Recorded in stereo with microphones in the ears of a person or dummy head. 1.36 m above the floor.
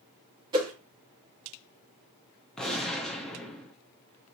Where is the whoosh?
25° right (ahead or behind), 1.4 m.